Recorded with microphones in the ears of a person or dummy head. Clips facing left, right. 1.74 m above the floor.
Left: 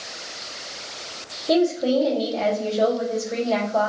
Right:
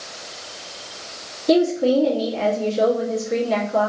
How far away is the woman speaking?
About 1.6 m.